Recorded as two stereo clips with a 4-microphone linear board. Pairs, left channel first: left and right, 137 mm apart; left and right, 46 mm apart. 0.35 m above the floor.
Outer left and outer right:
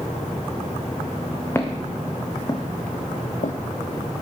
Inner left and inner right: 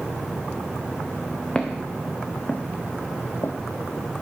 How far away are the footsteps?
About 2 m.